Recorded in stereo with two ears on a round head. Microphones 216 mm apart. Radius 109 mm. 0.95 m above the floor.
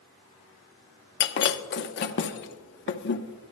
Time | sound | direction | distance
1.2 | breaking glass | 50° left (ahead or behind) | 0.9 m